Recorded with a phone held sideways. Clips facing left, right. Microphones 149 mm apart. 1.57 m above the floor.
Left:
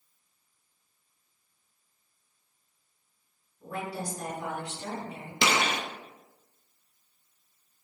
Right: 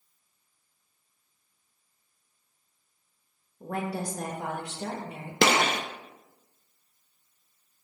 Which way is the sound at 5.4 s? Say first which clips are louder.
Right 4 dB; 55° right (ahead or behind).